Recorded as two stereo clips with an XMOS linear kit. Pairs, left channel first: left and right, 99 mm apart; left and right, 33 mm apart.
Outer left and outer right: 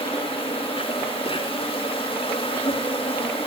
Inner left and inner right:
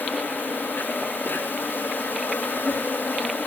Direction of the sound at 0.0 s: 70° left (ahead or behind).